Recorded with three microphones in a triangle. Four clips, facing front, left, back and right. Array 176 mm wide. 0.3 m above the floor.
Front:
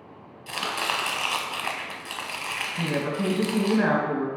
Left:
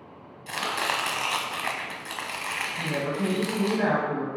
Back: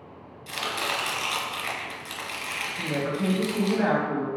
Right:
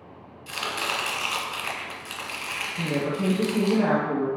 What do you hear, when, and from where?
0.5 s chopping: 50° left, 1.0 m
2.8 s a woman speaking: 10° right, 2.5 m